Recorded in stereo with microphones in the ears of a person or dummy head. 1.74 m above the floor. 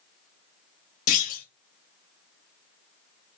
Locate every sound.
1.1 s a clunk: 45° left (ahead or behind), 1.0 m